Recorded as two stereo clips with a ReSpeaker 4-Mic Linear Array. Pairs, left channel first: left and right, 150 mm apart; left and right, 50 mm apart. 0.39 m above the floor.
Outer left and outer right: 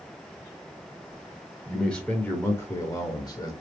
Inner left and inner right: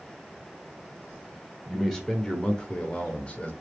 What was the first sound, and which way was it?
A man speaking, 5° left (ahead or behind).